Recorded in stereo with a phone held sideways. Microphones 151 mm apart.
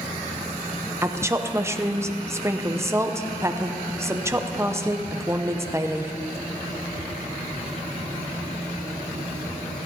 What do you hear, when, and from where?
1.0 s a woman speaking: 20° right (ahead or behind), 0.8 m